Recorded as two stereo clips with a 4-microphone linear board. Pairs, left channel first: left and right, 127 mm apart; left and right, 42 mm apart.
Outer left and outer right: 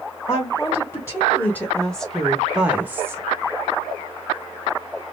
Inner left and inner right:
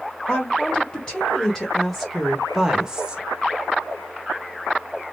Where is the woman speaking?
30° left (ahead or behind), 1.6 m; by 3.2 s 20° right (ahead or behind), 1.1 m.